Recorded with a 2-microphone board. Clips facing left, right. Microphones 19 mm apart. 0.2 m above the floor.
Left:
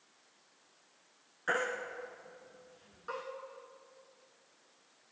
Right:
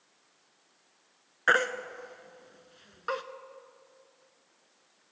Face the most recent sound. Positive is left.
turn(degrees=-65)  # may be behind; listen again after turning